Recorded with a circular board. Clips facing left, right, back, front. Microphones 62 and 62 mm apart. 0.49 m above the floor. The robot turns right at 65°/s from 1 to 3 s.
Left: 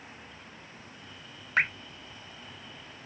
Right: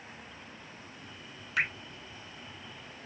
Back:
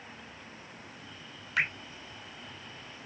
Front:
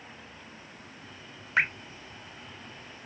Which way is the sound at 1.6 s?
50° left.